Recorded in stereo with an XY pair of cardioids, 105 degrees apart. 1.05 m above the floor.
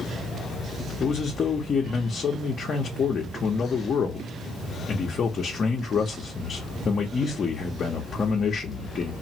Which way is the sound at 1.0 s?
45° left.